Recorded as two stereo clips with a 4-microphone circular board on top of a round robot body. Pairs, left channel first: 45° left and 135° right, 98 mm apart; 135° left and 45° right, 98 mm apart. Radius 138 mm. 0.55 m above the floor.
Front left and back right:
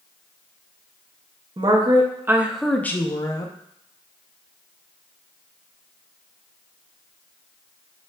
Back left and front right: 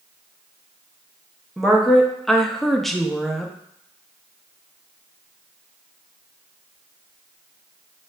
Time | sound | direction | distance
1.6 | a woman speaking | 135° right | 0.9 m